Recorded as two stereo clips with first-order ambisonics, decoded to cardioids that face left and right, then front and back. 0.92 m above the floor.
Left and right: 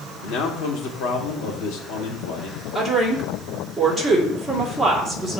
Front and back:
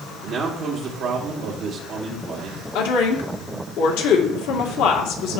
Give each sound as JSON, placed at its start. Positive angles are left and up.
{"t": 0.2, "sound": "a man speaking", "azimuth_deg": 115, "distance_m": 2.0}
{"t": 2.8, "sound": "a woman speaking", "azimuth_deg": 5, "distance_m": 2.0}